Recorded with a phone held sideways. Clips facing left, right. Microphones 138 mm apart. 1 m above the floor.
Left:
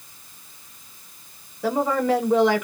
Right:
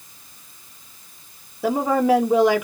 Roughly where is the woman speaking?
Centre.